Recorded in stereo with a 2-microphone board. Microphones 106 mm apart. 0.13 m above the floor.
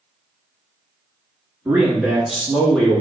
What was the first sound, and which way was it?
A man speaking, 20° right (ahead or behind).